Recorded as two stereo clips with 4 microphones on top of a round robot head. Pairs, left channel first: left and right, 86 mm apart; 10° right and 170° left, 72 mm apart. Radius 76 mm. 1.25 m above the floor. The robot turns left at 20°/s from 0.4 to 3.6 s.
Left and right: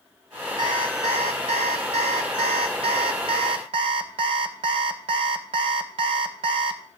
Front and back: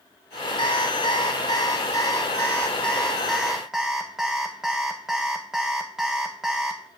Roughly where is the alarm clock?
Ahead right.